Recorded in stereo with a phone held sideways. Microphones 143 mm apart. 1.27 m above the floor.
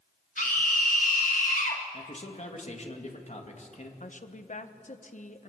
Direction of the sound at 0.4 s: 75° left (ahead or behind).